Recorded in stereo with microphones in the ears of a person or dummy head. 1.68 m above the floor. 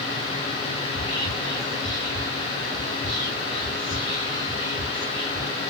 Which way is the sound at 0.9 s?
25° left (ahead or behind).